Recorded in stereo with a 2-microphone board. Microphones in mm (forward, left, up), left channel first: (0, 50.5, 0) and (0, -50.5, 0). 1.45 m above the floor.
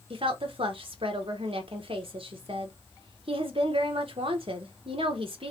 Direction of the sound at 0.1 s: 65° right (ahead or behind).